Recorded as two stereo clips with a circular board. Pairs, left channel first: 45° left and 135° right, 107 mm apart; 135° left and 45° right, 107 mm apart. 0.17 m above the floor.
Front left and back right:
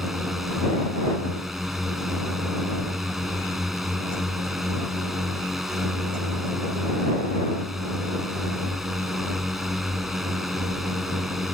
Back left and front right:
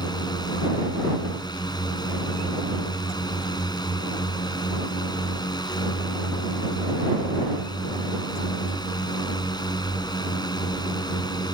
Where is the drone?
140° left.